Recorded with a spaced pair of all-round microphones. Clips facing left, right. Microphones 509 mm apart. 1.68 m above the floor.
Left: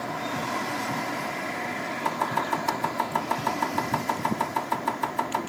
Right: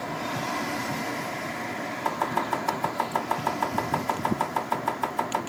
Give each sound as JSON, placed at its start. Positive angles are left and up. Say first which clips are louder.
{"t": 2.0, "sound": "chopping", "louder": "right 1 dB", "side_deg": 45, "distance_m": 1.0}